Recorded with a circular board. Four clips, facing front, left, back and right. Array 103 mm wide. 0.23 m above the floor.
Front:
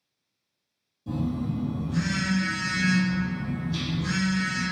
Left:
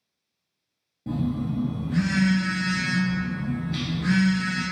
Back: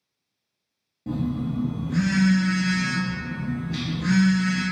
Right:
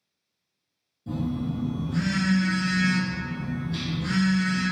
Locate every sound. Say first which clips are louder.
1.1 s a phone buzzing: left 2 dB, back 2 dB; 135° left, 0.5 m